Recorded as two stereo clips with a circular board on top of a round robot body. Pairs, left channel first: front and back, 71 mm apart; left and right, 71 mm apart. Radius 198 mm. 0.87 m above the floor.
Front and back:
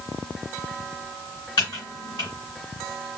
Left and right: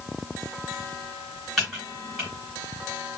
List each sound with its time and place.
1.6 s typing on a keyboard: straight ahead, 0.9 m